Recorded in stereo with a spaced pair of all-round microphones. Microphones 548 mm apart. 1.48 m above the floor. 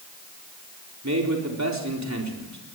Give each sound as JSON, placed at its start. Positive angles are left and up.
{"t": 1.0, "sound": "a man speaking", "side_deg": -30, "distance_m": 4.0}